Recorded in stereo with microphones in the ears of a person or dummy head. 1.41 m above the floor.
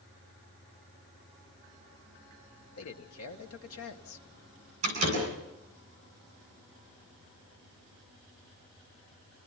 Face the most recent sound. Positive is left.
turn(degrees=-35)  # may be behind; listen again after turning